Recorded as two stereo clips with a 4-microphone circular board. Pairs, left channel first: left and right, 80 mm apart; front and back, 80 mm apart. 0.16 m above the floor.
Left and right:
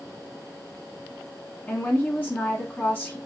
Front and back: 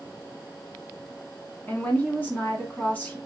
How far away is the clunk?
No clunk in this recording.